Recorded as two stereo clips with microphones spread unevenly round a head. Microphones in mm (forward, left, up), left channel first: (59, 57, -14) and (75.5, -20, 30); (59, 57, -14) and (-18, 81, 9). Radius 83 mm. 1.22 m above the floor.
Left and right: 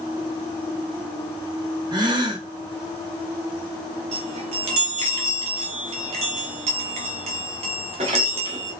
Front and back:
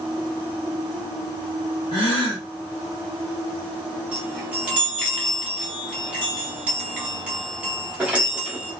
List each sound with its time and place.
1.9 s a gasp: 40° right, 0.9 m
4.1 s a chime: 105° right, 0.6 m